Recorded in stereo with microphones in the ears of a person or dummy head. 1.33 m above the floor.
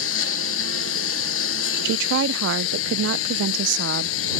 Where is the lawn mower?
75° left (ahead or behind).